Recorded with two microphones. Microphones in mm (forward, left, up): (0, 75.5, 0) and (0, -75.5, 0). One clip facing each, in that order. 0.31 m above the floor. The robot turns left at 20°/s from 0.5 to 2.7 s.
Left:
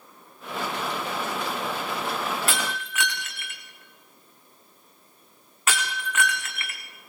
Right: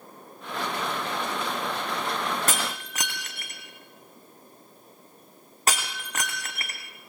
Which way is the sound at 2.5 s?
45° right (ahead or behind).